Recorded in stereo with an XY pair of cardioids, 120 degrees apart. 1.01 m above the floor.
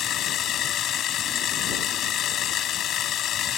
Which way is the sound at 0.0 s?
60° left.